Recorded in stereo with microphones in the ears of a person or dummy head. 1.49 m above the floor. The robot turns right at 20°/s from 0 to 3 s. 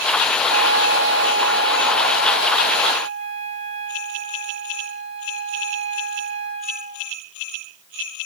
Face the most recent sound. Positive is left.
turn(degrees=140)